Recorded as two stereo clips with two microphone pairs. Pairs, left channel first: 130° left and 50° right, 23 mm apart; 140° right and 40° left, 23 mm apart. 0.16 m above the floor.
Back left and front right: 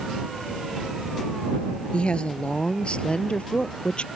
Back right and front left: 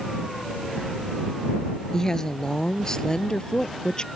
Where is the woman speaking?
160° left; by 4.1 s 165° left.